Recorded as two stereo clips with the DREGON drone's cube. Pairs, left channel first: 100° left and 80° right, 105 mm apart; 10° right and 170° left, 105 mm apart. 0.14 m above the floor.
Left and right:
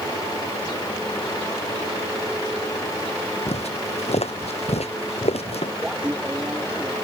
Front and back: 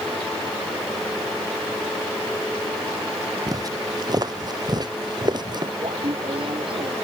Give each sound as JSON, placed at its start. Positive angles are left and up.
{"t": 3.5, "sound": "footsteps", "azimuth_deg": 115}
{"t": 5.8, "sound": "laughter", "azimuth_deg": -160}